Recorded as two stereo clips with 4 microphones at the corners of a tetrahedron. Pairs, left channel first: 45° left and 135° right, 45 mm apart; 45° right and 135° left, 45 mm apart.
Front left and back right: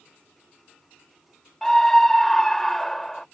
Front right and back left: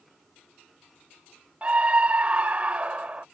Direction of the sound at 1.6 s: 120° left.